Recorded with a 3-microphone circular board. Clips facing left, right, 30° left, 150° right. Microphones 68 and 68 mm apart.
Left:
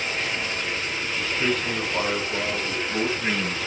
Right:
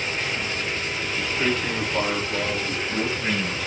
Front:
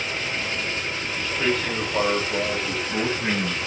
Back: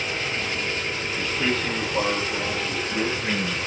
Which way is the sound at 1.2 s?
25° right.